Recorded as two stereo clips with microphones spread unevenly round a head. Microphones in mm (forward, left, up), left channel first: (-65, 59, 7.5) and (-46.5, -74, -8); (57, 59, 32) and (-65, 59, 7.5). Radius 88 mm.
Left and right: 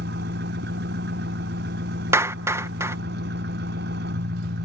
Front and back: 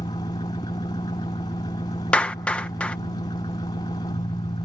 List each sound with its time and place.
0.0 s an engine running: 65° right
2.1 s a clap: 20° right